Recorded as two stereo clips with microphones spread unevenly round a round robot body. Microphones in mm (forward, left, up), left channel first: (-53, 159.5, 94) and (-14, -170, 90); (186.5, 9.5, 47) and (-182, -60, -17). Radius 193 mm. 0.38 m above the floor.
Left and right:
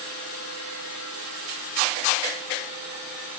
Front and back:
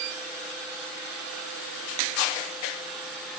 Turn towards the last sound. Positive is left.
No sound to turn to.